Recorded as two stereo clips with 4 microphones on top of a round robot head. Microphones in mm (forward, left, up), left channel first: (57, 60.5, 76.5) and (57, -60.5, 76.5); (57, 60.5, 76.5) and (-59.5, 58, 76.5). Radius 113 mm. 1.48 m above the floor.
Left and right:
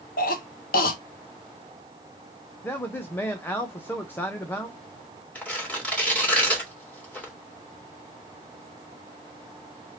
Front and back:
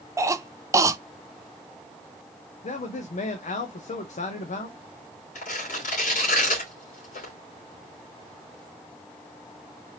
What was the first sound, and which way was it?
A cough, 115° left.